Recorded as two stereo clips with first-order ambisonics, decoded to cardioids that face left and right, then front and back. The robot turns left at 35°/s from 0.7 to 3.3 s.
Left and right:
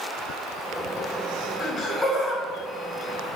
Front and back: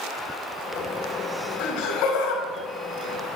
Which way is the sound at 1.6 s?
20° left.